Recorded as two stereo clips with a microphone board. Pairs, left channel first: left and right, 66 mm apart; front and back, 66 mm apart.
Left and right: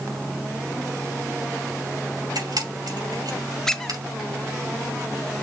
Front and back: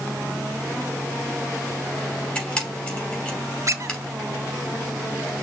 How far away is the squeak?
About 0.7 m.